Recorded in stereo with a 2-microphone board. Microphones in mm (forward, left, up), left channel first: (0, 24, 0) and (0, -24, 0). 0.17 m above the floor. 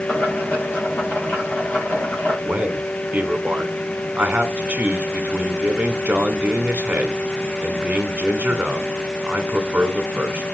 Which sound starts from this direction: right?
A man speaking, at 2.5 s.